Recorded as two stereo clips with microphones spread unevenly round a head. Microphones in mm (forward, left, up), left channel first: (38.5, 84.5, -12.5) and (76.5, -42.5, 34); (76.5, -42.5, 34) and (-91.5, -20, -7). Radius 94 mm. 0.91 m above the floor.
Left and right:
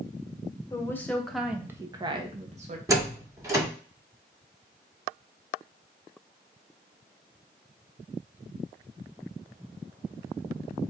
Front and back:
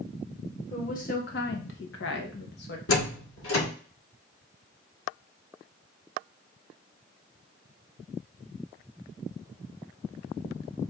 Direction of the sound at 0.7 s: 50° left.